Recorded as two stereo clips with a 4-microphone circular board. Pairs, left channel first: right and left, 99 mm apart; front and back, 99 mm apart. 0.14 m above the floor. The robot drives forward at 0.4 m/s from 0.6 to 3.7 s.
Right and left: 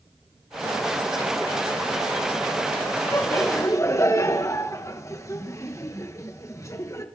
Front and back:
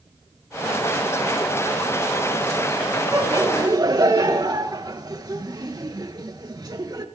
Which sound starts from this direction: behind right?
Laughter, at 3.1 s.